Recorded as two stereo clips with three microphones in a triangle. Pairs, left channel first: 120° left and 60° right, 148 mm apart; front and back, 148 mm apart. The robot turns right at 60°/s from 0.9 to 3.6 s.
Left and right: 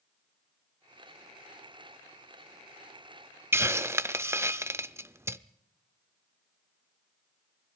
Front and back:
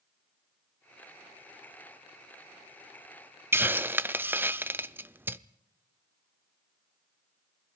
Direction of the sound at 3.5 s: 120° right.